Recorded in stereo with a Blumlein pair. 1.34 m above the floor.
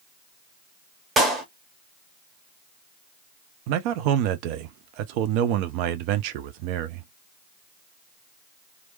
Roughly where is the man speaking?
Ahead right.